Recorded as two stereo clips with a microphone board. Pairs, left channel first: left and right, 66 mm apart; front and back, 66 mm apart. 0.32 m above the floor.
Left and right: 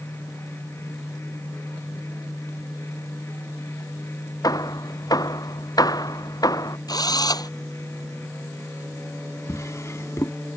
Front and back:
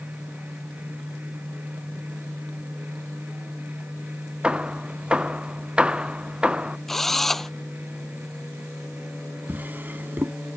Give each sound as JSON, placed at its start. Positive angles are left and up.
{"t": 4.4, "sound": "hammering", "azimuth_deg": 105}
{"t": 6.9, "sound": "a drill", "azimuth_deg": 85}
{"t": 9.5, "sound": "a drawer", "azimuth_deg": 120}